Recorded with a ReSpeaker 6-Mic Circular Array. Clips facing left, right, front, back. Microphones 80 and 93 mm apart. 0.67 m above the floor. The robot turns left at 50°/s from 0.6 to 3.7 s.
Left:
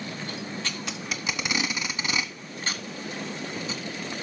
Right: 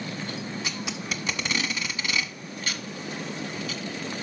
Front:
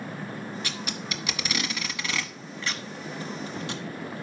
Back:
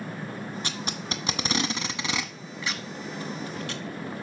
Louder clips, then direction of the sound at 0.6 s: Right 1 dB, back 1 dB; 155° right.